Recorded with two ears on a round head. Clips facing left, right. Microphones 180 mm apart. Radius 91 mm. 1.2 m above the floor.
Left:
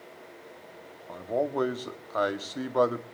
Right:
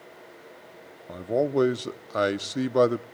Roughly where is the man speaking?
Right.